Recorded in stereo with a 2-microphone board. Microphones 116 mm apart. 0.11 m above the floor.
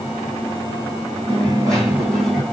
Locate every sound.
1.3 s a dropped coin: 5° left (ahead or behind), 2 m